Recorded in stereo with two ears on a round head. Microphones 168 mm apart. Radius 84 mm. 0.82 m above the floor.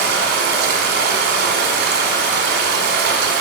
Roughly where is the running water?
Right.